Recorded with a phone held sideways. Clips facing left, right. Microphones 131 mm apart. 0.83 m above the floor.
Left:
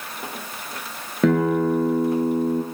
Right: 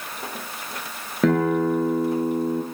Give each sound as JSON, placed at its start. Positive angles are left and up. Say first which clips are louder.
{"t": 1.2, "sound": "a guitar", "louder": "left 1 dB", "side_deg": 0, "distance_m": 5.5}